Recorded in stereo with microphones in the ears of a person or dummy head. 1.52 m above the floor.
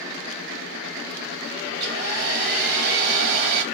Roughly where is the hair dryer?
Right.